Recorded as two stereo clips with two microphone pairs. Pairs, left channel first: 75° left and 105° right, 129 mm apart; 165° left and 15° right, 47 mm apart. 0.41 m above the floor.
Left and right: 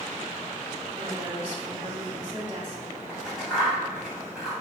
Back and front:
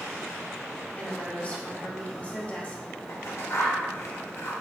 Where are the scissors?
170° left, 3 m.